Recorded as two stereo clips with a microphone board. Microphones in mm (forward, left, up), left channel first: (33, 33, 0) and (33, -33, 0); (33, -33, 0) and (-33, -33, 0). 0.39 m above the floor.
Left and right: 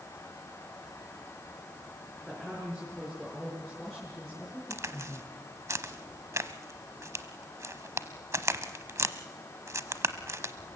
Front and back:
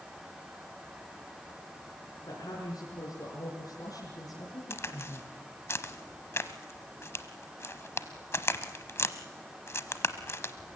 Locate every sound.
2.3 s a woman speaking: 5° right, 6 m; by 5.4 s 5° left, 5 m
4.7 s a crack: 50° right, 1.0 m